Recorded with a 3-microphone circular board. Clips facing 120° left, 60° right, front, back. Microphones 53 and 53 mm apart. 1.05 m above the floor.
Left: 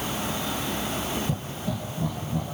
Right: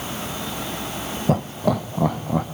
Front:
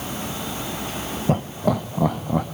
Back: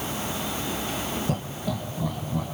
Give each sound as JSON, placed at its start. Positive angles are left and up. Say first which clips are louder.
{"t": 1.3, "sound": "laughter", "louder": "right 10 dB, front 8 dB", "azimuth_deg": -60, "distance_m": 0.5}